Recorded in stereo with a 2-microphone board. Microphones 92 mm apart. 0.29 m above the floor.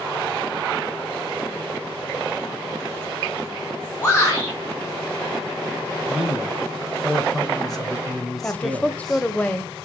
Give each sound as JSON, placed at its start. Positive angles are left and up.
{"t": 4.0, "sound": "a shout", "side_deg": 30, "distance_m": 4.0}
{"t": 6.1, "sound": "a man speaking", "side_deg": 0, "distance_m": 2.5}
{"t": 8.4, "sound": "a woman speaking", "side_deg": 15, "distance_m": 0.9}